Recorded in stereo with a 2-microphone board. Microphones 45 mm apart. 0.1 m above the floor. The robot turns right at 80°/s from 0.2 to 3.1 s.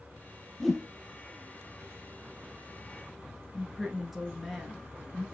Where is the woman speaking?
Centre (ahead or behind), 1.3 m.